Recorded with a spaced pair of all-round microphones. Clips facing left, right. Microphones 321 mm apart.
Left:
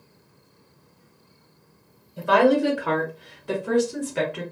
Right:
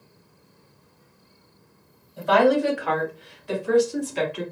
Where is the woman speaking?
35° left (ahead or behind), 1.2 m; by 4.4 s 60° left (ahead or behind), 1.3 m.